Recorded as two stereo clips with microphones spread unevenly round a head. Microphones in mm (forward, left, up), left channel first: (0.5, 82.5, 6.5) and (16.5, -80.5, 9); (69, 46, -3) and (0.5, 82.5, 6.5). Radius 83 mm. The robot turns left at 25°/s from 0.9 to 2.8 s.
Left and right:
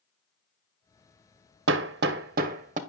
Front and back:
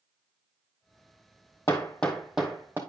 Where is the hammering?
105° right, 0.7 m; by 2.8 s 135° right, 0.7 m.